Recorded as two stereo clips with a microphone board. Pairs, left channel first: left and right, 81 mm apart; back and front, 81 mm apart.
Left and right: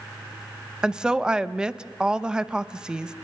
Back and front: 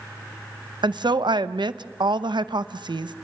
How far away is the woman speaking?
About 0.6 m.